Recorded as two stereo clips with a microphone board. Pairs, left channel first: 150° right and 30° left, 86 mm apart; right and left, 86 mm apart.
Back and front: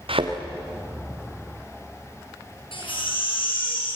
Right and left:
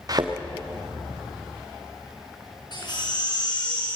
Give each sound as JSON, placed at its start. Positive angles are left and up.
{"t": 0.1, "sound": "a thud", "azimuth_deg": 45, "distance_m": 3.5}
{"t": 2.7, "sound": "a baby crying", "azimuth_deg": -125, "distance_m": 8.0}